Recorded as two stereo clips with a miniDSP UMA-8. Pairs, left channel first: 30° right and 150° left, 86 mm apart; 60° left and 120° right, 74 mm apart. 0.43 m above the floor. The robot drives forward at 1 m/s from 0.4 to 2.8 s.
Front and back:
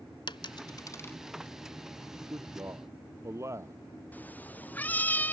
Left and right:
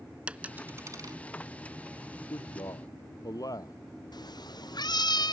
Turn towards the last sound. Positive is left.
turn(degrees=40)